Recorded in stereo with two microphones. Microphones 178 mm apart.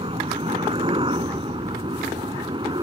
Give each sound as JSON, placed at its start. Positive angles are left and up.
{"t": 0.0, "sound": "a helicopter", "side_deg": -30}